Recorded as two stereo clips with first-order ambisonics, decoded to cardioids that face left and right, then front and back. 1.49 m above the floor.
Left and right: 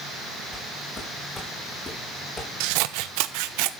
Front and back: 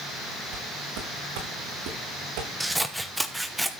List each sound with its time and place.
0.5 s footsteps: 170° left, 9 m; by 2.5 s 160° left, 6.5 m
2.6 s scissors: 90° right, 1.0 m